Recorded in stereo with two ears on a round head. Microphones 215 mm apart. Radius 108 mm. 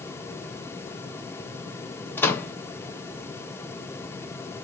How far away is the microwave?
About 0.7 m.